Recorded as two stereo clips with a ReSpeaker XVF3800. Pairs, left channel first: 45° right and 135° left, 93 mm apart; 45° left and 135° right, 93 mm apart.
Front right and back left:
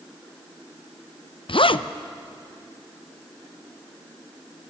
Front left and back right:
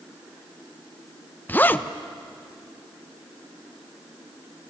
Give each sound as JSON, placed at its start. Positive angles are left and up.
{"t": 1.5, "sound": "a zipper", "azimuth_deg": -25, "distance_m": 0.6}